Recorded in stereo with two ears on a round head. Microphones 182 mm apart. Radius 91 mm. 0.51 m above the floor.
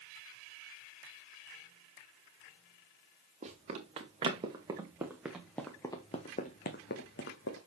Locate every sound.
3.4 s running footsteps: 35° right (ahead or behind), 3 m; by 7.6 s 70° left (ahead or behind), 2.0 m